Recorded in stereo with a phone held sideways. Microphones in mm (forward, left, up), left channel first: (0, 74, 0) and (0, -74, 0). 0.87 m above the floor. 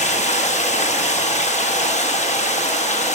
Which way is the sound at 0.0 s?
50° left (ahead or behind).